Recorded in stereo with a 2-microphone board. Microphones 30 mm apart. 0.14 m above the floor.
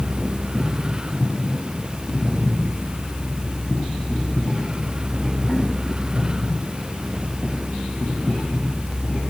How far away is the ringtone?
No ringtone in this recording.